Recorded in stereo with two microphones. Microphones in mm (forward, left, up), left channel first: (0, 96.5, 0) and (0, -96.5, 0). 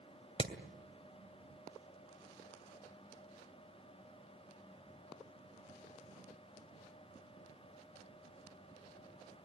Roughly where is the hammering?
Left.